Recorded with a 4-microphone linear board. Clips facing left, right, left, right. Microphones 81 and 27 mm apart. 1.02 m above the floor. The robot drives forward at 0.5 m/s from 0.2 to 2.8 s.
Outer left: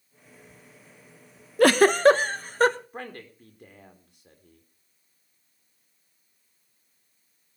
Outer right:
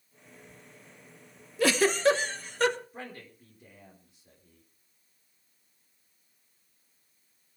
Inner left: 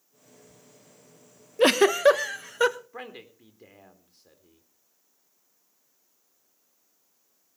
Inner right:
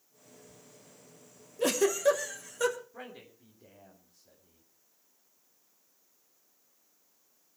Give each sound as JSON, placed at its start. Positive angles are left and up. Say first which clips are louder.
{"t": 1.6, "sound": "a giggle", "louder": "outer left 7 dB, inner left 8 dB", "side_deg": 55, "distance_m": 0.7}
{"t": 2.9, "sound": "a man speaking", "louder": "outer left 4 dB, inner left 5 dB", "side_deg": 60, "distance_m": 3.5}